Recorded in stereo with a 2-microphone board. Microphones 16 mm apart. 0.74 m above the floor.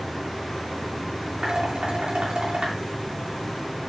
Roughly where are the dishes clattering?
Right.